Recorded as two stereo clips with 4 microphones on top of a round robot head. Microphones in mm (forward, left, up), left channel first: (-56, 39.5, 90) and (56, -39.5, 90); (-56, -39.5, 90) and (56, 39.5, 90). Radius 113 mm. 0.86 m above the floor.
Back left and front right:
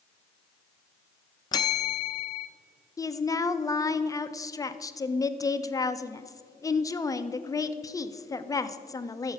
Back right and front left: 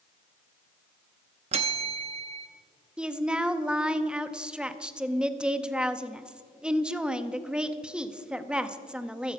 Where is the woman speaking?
110° left, 0.8 m.